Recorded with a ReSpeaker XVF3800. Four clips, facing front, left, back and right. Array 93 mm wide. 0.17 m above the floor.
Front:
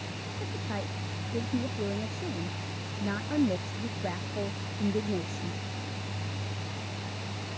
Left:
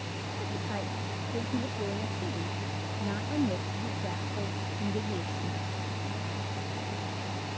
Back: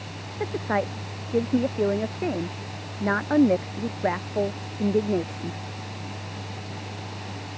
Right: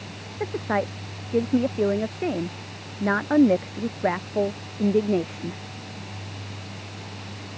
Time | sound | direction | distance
0.4 | a woman speaking | 135° right | ?